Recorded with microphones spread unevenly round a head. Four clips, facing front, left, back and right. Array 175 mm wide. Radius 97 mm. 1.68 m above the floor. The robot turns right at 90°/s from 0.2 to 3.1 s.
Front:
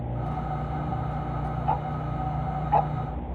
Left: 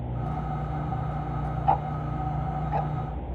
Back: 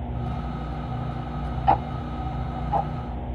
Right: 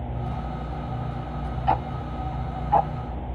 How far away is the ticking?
About 0.6 m.